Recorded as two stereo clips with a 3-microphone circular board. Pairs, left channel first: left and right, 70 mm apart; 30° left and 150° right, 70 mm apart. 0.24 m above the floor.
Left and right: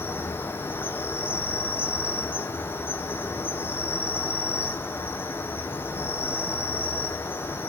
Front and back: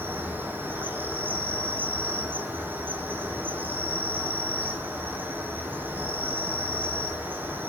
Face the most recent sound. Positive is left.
turn(degrees=150)